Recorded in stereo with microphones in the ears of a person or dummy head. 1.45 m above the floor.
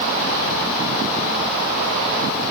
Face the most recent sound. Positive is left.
No sound to turn to.